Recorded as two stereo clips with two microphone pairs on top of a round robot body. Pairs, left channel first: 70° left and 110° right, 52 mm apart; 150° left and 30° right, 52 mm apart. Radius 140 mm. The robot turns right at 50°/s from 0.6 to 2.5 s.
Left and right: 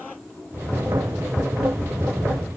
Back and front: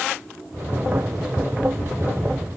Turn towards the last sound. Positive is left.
No sound to turn to.